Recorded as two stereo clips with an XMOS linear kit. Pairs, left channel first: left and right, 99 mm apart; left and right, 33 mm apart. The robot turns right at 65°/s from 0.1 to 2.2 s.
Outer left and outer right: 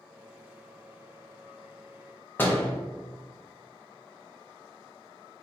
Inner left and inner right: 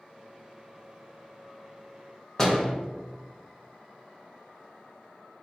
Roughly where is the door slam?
Centre.